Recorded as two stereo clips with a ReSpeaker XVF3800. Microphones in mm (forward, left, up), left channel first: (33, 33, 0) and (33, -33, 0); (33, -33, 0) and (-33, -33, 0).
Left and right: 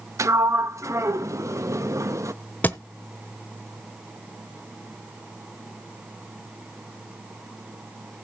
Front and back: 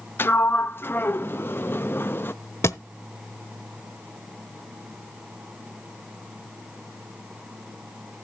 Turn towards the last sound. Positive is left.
turn(degrees=30)